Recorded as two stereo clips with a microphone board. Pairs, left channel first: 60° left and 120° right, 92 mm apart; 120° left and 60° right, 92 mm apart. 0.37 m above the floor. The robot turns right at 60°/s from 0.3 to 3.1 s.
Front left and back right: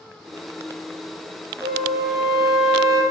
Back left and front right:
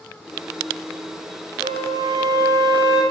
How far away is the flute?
About 1.4 m.